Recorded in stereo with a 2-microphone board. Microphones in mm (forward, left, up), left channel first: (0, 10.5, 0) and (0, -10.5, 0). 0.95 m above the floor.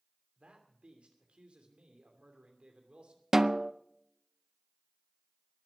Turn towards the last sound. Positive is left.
turn(degrees=-25)  # may be behind; listen again after turning